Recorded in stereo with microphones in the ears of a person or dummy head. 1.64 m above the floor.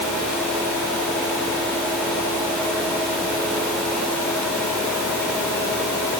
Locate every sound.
Only background noise.